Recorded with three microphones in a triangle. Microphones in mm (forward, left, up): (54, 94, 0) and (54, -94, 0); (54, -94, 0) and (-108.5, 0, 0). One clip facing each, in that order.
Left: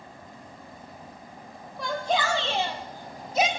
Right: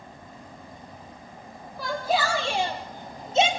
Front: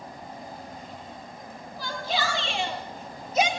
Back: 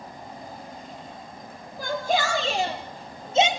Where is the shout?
Straight behind, 3 m; by 3.5 s 145° right, 2.5 m.